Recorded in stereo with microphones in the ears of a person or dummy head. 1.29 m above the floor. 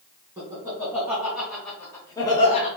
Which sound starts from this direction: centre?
Laughter, at 0.4 s.